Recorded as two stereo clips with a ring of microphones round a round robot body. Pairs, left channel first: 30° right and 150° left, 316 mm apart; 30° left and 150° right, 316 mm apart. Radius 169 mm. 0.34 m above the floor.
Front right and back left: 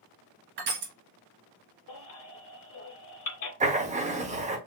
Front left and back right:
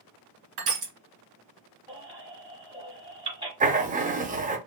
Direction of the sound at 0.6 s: 155° right.